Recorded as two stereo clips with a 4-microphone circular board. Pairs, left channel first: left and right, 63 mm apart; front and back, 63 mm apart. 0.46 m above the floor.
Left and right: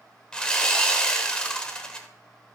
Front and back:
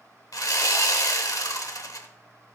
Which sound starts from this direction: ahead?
Sawing, at 0.3 s.